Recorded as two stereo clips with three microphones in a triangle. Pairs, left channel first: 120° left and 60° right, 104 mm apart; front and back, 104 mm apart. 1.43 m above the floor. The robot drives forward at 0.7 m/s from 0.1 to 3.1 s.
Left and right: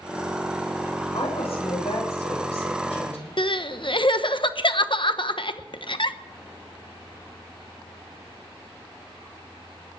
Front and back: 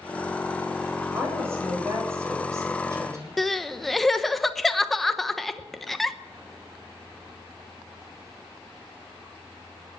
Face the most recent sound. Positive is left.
turn(degrees=90)